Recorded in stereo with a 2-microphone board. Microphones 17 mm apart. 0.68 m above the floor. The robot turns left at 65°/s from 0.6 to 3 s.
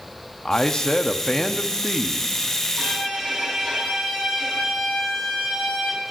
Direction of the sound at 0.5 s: 90° left.